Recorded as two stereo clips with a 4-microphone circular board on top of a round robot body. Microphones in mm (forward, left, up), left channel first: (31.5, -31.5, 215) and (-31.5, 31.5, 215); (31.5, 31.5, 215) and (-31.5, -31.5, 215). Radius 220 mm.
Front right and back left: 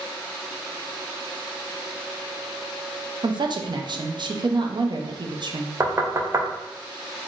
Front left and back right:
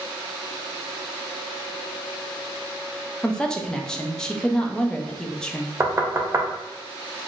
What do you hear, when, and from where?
3.2 s a woman speaking: 125° left, 0.7 m
5.8 s knocking: straight behind, 0.7 m